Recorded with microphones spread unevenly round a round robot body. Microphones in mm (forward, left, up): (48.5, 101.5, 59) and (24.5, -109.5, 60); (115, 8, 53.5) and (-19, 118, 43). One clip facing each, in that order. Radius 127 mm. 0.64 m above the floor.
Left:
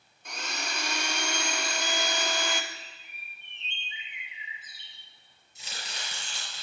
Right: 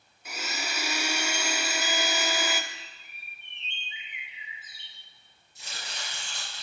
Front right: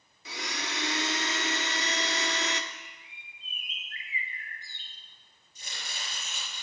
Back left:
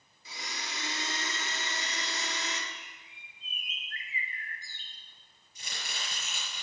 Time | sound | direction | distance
0.2 | a blender | 15° right | 0.8 m
2.7 | a bird | 95° left | 2.0 m
5.5 | chopping | 110° left | 5 m